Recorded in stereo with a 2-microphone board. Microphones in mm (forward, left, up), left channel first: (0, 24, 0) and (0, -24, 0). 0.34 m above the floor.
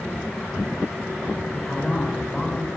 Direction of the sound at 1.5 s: 15° left (ahead or behind).